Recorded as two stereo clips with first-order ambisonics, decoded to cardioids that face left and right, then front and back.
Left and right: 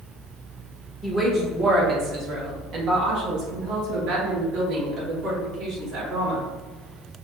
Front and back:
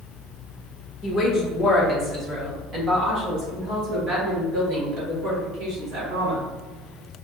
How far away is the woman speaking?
About 0.9 m.